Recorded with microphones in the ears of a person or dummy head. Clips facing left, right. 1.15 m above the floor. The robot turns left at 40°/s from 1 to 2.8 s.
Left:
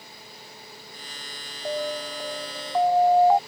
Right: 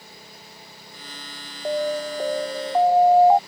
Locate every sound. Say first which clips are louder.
1.6 s an alarm: right 5 dB; 120° right; by 3.4 s 165° right